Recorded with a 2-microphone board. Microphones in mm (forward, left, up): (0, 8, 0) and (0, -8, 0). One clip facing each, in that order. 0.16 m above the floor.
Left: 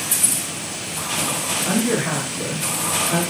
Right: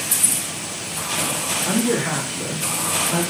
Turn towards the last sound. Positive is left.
turn(degrees=40)  # may be behind; listen again after turning